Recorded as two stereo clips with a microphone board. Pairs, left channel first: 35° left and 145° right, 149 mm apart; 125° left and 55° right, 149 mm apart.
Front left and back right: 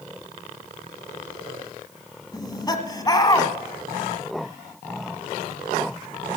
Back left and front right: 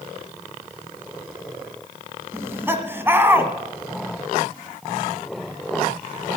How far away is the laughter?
About 1.4 m.